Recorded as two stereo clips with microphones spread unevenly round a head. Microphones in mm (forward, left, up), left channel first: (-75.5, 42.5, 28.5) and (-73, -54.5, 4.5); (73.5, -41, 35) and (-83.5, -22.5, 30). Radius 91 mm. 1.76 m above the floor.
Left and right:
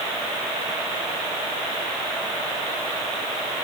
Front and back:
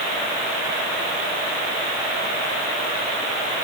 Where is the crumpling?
I don't hear crumpling.